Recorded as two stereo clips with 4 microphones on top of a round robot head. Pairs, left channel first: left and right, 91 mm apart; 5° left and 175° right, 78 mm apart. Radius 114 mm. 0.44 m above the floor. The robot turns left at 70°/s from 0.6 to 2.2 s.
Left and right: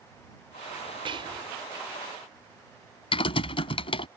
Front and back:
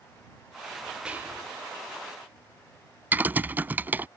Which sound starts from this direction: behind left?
Typing on a keyboard, at 3.1 s.